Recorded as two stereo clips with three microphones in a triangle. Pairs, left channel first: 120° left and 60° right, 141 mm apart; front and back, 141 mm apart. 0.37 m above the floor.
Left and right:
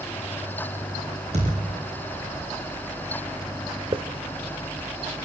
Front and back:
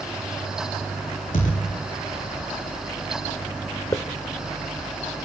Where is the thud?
20° right, 8 m.